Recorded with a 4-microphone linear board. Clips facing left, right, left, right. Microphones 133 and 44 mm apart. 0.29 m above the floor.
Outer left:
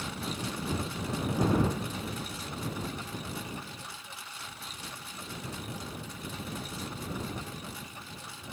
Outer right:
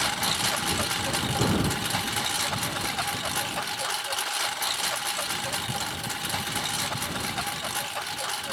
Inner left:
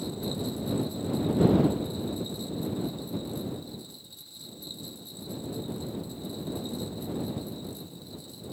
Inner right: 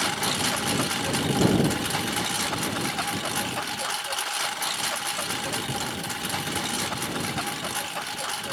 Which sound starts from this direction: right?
A lawn mower, at 0.0 s.